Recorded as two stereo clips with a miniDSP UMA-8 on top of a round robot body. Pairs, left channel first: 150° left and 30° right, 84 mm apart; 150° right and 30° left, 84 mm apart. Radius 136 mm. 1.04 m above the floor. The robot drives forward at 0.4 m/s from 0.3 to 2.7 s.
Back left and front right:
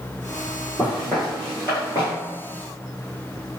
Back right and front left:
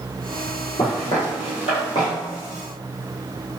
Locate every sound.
0.8 s footsteps: 110° right, 1.8 m; by 2.1 s straight behind, 1.4 m